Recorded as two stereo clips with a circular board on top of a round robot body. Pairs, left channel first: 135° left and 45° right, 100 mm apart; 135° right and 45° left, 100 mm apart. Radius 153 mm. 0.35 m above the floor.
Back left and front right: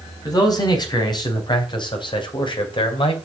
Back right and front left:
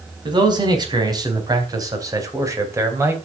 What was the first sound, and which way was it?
A man speaking, 85° left.